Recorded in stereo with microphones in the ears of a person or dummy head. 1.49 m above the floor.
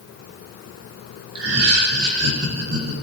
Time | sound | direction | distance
1.4 | laughter | 90° right | 3 m